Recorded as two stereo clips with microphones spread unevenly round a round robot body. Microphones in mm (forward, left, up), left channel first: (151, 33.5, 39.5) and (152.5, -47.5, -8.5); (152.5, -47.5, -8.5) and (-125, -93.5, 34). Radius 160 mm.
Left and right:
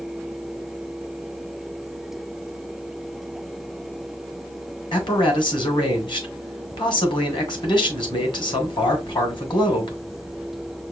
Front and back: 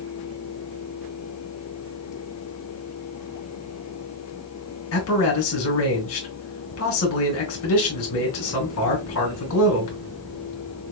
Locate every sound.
4.9 s a man speaking: 45° left, 2.5 m